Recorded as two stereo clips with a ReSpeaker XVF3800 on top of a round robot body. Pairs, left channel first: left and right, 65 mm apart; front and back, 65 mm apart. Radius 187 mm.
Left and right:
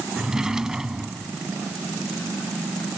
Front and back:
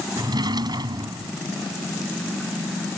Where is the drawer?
170° right.